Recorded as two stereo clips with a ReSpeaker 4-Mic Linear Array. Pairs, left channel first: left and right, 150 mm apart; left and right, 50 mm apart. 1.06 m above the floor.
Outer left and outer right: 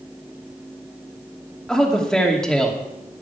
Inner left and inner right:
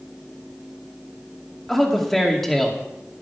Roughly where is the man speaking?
Centre.